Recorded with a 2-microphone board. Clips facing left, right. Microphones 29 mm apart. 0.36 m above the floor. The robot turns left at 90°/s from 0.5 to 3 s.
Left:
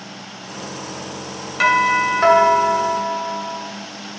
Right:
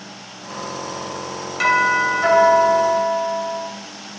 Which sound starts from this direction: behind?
A doorbell, at 1.6 s.